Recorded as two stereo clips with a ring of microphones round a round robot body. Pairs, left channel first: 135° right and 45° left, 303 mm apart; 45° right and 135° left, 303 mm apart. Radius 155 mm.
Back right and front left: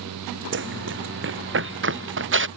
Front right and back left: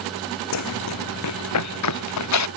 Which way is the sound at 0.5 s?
10° right.